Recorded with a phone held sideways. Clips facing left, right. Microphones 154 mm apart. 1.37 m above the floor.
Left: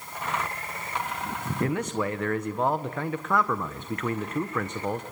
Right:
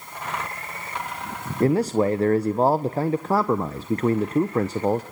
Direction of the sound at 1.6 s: 35° right (ahead or behind).